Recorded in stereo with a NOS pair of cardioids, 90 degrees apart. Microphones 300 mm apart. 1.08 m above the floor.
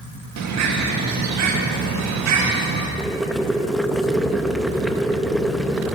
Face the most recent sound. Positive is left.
turn(degrees=0)